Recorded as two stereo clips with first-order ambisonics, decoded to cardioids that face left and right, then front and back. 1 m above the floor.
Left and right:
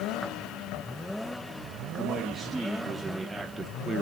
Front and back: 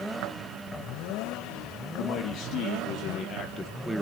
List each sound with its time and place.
1.9 s a man speaking: 5° right, 1.7 m; by 4.0 s 125° right, 0.8 m